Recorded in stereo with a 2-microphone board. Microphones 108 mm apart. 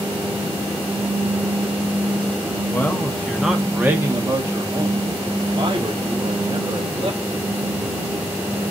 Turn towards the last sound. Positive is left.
turn(degrees=-45)  # may be behind; listen again after turning